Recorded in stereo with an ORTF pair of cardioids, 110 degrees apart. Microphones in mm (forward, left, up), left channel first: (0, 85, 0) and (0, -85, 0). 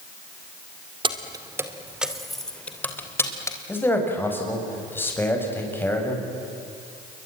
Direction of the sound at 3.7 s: 10° left.